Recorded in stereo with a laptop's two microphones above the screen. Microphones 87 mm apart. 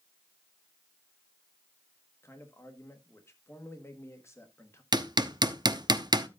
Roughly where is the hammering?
Right.